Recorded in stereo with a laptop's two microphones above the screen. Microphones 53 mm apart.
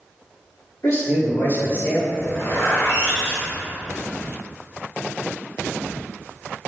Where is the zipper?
70° left (ahead or behind), 1.6 m.